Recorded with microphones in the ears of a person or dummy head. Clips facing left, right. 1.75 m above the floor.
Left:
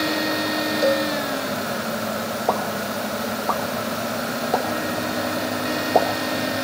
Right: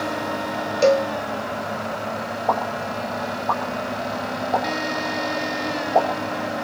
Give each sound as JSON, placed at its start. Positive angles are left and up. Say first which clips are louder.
{"t": 0.8, "sound": "a cowbell", "louder": "right 4 dB", "side_deg": -40, "distance_m": 0.6}
{"t": 2.5, "sound": "a pop", "louder": "right 1 dB", "side_deg": 45, "distance_m": 3.0}